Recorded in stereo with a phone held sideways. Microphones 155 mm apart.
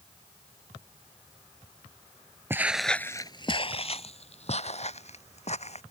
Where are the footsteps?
15° right (ahead or behind); by 5.8 s 50° left (ahead or behind).